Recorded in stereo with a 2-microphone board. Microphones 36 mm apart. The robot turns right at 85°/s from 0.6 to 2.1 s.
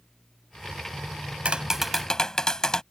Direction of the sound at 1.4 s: 35° right.